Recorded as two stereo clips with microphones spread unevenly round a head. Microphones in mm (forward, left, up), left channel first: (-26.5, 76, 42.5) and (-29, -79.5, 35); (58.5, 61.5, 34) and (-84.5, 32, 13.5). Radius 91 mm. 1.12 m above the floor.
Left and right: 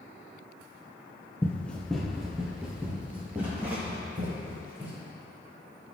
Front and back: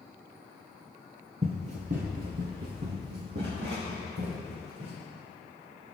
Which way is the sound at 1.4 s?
155° left.